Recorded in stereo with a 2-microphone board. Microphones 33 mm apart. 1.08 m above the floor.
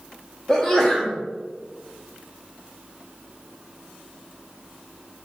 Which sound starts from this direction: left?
A sneeze, at 0.5 s.